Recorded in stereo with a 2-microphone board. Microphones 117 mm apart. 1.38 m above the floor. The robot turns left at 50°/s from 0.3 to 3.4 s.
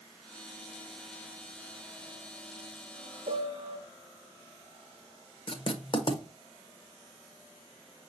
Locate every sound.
3.3 s a piano: 70° right (ahead or behind), 0.7 m; by 3.8 s 65° right (ahead or behind), 0.7 m
5.5 s writing: 45° left (ahead or behind), 0.7 m